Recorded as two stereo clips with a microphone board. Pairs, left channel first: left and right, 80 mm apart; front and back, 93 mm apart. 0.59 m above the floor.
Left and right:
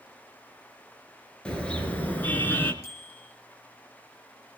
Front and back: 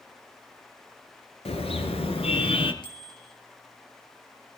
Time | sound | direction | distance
1.4 | a car horn | 10° left | 4 m
2.8 | a bicycle bell | 35° left | 8 m